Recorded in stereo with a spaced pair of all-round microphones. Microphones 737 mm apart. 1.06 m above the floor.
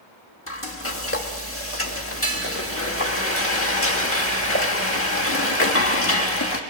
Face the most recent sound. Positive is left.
turn(degrees=20)  # may be behind; listen again after turning